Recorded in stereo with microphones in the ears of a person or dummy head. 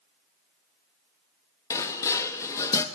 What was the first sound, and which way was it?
Dishes clattering, 20° left (ahead or behind).